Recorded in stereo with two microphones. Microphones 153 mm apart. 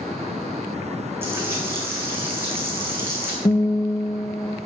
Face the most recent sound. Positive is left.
turn(degrees=30)  # may be behind; listen again after turning